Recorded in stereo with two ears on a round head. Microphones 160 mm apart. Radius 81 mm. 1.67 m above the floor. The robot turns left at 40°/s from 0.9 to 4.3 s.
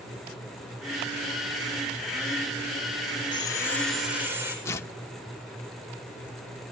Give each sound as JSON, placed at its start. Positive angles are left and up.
{"t": 3.3, "sound": "sawing", "azimuth_deg": 25, "distance_m": 7.0}
{"t": 4.7, "sound": "tearing paper", "side_deg": 15, "distance_m": 1.4}